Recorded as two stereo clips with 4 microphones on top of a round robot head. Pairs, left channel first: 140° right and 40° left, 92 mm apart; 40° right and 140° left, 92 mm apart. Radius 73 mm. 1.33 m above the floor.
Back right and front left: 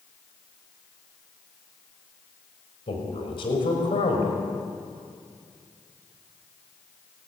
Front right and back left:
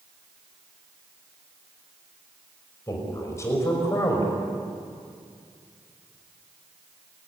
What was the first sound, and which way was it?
A man speaking, 100° right.